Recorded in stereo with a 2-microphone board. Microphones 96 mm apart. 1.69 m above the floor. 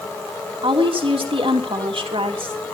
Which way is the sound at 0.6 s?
65° right (ahead or behind).